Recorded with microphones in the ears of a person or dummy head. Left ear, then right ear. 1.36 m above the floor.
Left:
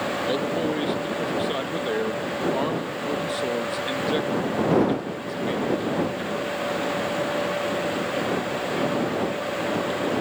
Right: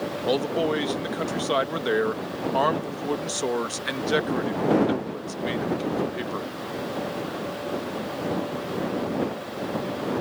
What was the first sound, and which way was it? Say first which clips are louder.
A man speaking: right 5 dB; 35° right (ahead or behind).